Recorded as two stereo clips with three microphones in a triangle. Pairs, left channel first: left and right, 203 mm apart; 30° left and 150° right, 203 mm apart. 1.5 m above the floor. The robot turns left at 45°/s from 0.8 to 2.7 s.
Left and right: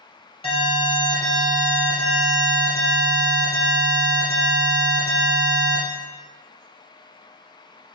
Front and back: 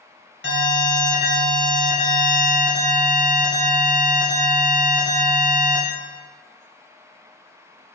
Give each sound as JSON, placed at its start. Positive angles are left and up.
{"t": 0.4, "sound": "an alarm", "azimuth_deg": 30, "distance_m": 1.7}